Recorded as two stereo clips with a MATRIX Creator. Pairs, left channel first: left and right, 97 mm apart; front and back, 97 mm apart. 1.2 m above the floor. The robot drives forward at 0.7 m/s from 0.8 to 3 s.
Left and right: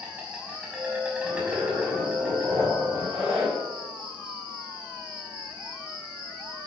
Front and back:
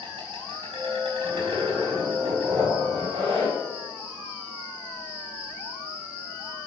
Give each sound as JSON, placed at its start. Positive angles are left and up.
{"t": 0.0, "sound": "an insect", "azimuth_deg": -165, "distance_m": 4.5}
{"t": 1.2, "sound": "a zipper", "azimuth_deg": -145, "distance_m": 4.5}